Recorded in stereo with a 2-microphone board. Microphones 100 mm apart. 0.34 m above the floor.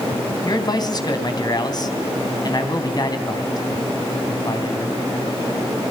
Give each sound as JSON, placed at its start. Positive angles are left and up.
{"t": 0.5, "sound": "a man speaking", "side_deg": 40, "distance_m": 3.0}